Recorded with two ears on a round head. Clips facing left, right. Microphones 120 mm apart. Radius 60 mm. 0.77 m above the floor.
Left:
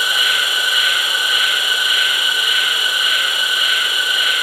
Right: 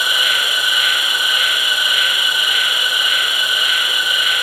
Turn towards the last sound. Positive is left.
turn(degrees=-5)  # may be behind; listen again after turning